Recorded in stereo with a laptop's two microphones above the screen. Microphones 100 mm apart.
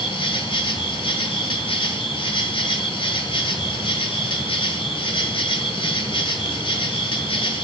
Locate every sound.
0.0 s an insect: 60° left (ahead or behind), 1.2 m